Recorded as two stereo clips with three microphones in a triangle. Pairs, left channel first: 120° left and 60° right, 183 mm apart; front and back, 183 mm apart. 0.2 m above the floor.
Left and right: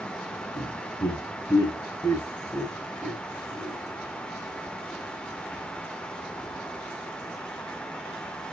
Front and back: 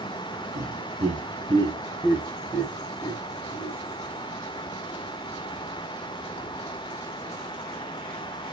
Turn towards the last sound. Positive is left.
turn(degrees=10)